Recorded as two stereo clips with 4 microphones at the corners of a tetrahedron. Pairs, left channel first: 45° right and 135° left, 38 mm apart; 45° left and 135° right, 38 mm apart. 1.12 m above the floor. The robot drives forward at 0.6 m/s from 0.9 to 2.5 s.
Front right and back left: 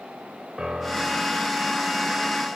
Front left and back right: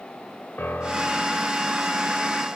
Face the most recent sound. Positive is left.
turn(degrees=100)